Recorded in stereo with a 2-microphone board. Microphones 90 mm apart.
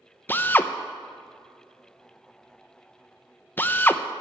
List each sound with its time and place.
0.3 s a drill: 20° left (ahead or behind), 0.6 m